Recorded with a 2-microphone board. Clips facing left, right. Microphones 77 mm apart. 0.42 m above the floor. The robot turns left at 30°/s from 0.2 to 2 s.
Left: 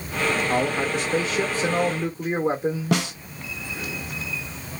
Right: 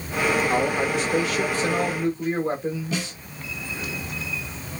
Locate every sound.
0.5 s a man speaking: 165° left, 1.5 m; by 3.2 s 120° left, 1.5 m
2.9 s a snare drum: 70° left (ahead or behind), 0.7 m